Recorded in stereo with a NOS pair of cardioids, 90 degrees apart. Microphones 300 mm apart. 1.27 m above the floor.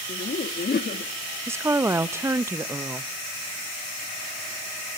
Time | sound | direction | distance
0.1 | laughter | 35° left | 2 m
1.5 | a woman speaking | 10° right | 1.1 m